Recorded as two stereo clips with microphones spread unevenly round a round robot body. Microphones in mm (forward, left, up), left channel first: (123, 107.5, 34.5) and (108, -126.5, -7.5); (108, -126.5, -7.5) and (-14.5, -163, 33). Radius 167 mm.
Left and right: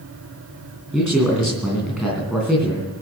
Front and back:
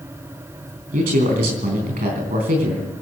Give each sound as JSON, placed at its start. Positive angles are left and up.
{"t": 0.9, "sound": "a man speaking", "azimuth_deg": 180, "distance_m": 3.5}